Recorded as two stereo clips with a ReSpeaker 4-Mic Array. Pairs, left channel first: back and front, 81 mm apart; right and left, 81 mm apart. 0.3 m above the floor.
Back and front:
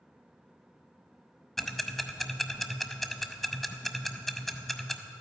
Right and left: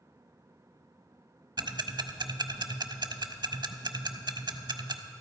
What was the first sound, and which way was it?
Ticking, 95° left.